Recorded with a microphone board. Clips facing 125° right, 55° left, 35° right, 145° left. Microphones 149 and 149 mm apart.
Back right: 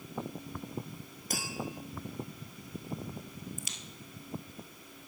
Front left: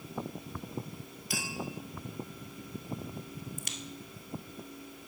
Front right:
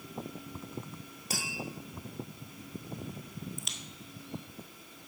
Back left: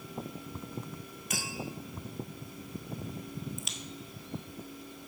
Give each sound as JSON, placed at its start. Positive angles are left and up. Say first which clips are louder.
{"t": 1.3, "sound": "tapping", "louder": "even, even", "azimuth_deg": -85, "distance_m": 1.8}
{"t": 3.6, "sound": "a crack", "louder": "front left 2 dB, back left 2 dB", "azimuth_deg": 55, "distance_m": 0.8}